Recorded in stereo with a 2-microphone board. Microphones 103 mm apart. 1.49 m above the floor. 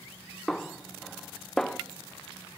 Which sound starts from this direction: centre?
A snare drum, at 0.5 s.